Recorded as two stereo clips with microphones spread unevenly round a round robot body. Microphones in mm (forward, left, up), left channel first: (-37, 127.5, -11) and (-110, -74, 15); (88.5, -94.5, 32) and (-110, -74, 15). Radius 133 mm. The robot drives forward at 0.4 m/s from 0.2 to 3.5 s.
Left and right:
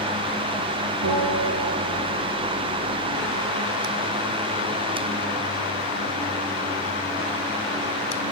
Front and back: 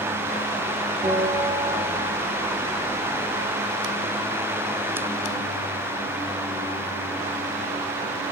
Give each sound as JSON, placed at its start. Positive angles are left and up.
{"t": 1.0, "sound": "a bell", "azimuth_deg": -125, "distance_m": 9.0}